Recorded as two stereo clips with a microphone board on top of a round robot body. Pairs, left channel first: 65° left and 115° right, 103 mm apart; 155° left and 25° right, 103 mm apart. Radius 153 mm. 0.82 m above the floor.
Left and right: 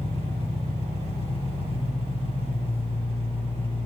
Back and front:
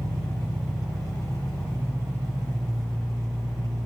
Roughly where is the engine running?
Ahead left.